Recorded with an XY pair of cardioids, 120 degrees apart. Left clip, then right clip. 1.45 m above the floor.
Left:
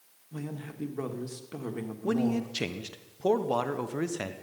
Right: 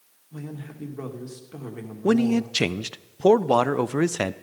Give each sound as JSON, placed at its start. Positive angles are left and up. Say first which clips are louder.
{"t": 0.3, "sound": "a man speaking", "louder": "right 1 dB", "azimuth_deg": 15, "distance_m": 1.7}
{"t": 2.0, "sound": "a man speaking", "louder": "right 8 dB", "azimuth_deg": -50, "distance_m": 0.6}